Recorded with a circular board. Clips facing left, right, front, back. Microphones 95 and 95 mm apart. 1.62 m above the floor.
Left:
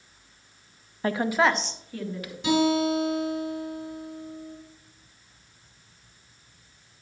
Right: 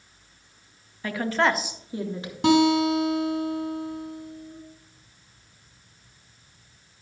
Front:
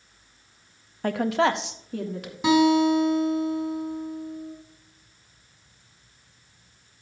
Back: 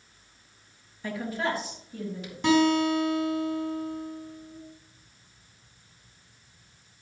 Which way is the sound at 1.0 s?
35° left.